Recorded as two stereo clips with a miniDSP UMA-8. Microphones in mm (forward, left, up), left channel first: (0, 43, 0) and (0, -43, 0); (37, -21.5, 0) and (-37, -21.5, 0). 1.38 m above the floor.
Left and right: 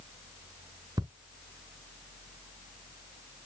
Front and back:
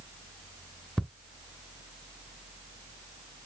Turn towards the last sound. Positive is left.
turn(degrees=-85)